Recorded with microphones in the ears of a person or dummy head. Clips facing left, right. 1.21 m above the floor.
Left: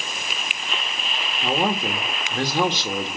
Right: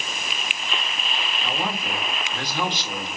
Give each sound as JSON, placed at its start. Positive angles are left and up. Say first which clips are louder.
{"t": 1.4, "sound": "a man speaking", "louder": "left 8 dB", "side_deg": 35, "distance_m": 1.7}